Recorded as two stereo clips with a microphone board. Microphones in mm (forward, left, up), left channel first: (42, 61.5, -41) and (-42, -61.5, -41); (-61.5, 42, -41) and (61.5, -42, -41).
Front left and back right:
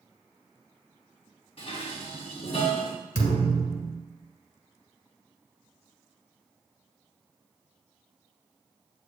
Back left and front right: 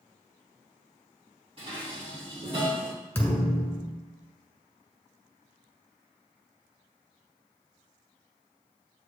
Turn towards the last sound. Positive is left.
turn(degrees=70)